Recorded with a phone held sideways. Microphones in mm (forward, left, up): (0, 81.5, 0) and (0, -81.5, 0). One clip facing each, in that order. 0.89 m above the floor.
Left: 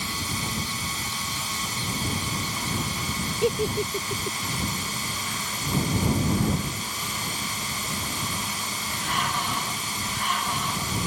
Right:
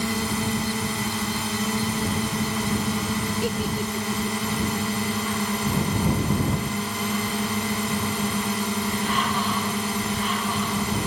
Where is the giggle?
25° left (ahead or behind).